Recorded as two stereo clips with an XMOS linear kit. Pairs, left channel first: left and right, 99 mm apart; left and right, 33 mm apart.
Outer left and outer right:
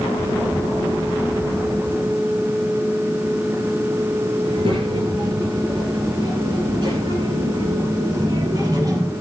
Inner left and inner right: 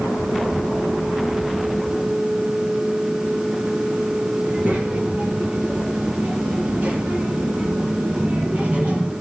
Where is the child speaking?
60° right (ahead or behind), 4 m; by 9.1 s 40° right (ahead or behind), 5.5 m.